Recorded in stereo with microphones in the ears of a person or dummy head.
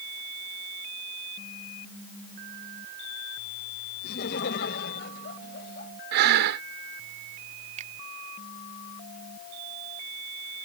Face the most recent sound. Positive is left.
turn(degrees=-40)  # may be behind; listen again after turning